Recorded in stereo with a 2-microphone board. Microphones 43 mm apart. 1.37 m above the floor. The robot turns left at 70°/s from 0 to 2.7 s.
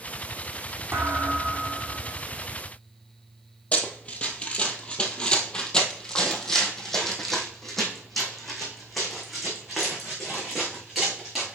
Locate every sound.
0.9 s a thud: 95° right, 3 m; by 2.2 s 175° left, 3 m
3.7 s running footsteps: 30° left (ahead or behind), 1.6 m; by 11.6 s 5° right (ahead or behind), 5 m